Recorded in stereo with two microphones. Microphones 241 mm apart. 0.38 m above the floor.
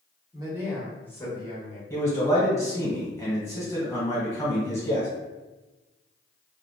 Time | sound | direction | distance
0.3 | a man speaking | 20° right (ahead or behind) | 1.2 m
1.9 | a man speaking | 10° left (ahead or behind) | 1.8 m